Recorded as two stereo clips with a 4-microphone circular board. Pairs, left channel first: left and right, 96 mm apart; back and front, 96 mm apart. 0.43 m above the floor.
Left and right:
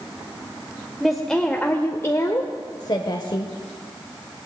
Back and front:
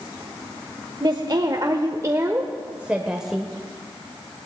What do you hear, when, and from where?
1.0 s a woman speaking: straight ahead, 1.3 m; by 3.5 s 90° left, 1.5 m